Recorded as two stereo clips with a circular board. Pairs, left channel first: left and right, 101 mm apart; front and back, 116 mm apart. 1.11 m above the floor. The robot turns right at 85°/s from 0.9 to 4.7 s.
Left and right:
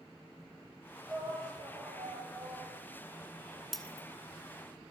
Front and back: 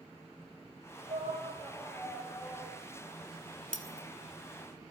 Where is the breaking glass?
Straight ahead, 1.9 m; by 4.1 s 30° left, 1.9 m.